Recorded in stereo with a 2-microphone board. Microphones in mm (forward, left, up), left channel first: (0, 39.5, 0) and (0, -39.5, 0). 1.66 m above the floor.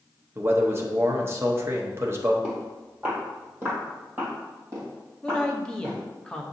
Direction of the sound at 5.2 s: 10° left (ahead or behind).